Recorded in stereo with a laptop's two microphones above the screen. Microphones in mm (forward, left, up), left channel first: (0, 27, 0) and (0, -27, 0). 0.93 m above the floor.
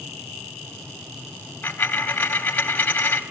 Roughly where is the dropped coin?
Left.